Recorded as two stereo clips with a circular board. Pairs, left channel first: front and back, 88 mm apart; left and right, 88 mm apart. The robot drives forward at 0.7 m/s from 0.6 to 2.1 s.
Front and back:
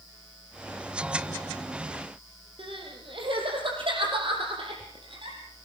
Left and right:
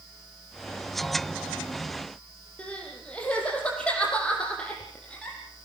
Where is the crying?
165° left, 7 m.